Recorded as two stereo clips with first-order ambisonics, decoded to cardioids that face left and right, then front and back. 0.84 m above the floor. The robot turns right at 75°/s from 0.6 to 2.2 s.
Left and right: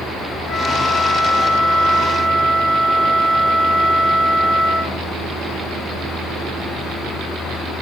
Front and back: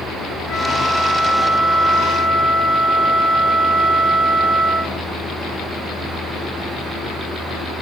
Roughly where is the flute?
Ahead left.